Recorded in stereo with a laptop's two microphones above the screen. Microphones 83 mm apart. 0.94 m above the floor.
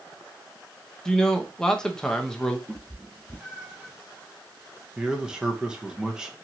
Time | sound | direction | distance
1.1 | a man speaking | 10° left (ahead or behind) | 0.6 m
2.7 | a cat meowing | 20° right (ahead or behind) | 2 m
5.0 | a man speaking | 10° right (ahead or behind) | 0.7 m